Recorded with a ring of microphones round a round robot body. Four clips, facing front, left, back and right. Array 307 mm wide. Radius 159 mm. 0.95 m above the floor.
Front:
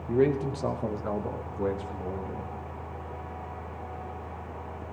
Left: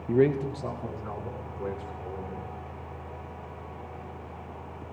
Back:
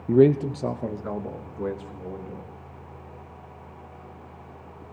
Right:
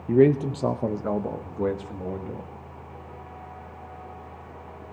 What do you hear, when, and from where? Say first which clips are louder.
0.1 s a man speaking: right 5 dB, back 7 dB; 160° right, 0.6 m; by 2.5 s 90° right, 2 m